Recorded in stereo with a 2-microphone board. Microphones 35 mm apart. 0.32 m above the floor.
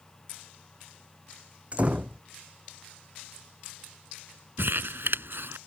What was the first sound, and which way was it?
A door slam, 35° right (ahead or behind).